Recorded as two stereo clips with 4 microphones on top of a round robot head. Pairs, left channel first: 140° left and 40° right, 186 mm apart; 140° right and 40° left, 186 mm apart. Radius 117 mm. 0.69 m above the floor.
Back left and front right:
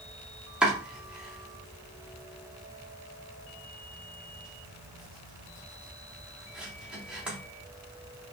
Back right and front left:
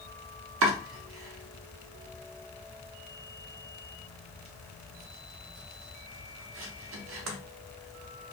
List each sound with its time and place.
0.6 s chopping: 45° left, 0.7 m